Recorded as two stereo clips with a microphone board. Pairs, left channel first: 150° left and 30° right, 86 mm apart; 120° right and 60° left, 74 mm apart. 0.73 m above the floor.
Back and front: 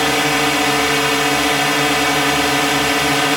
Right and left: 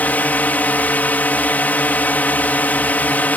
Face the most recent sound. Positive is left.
turn(degrees=-115)